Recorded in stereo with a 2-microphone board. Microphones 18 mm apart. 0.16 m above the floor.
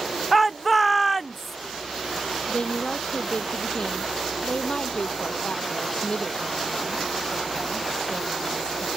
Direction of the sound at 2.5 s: 60° left (ahead or behind).